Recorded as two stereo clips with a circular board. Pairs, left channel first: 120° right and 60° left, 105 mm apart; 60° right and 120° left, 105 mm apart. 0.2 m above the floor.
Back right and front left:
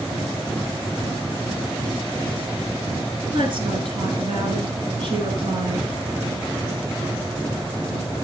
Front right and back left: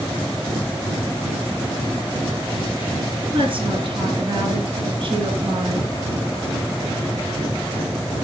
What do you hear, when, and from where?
3.3 s a woman speaking: 95° left, 3.5 m